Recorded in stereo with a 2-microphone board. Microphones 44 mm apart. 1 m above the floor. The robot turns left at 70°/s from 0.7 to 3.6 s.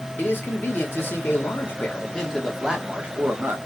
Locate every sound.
0.2 s a man speaking: 125° left, 1.4 m; by 3.6 s 75° right, 1.4 m